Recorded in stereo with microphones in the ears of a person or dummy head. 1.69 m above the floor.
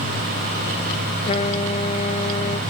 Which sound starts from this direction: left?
A trumpet, at 1.2 s.